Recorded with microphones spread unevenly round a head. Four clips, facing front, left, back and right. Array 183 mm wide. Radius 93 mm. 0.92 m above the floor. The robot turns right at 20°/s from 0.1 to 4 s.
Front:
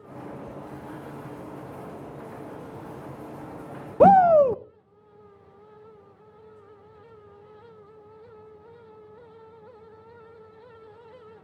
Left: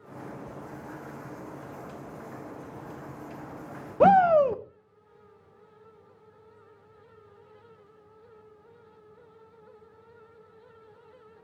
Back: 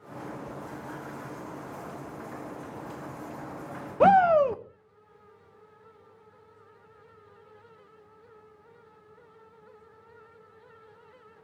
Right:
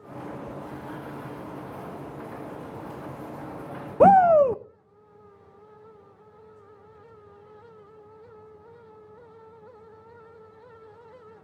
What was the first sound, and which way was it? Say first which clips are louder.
A shout: right 3 dB, front 4 dB; 10° right.